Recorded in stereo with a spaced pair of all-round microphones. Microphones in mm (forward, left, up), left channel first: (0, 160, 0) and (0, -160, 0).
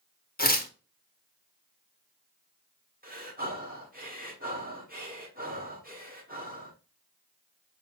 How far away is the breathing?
About 1.4 m.